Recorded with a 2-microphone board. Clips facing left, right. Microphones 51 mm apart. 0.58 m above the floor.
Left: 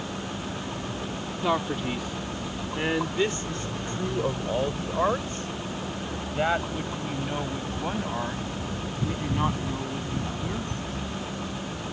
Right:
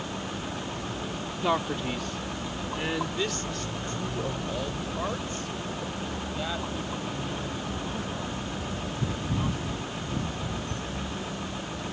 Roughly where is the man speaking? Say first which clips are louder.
Left 1 dB; centre.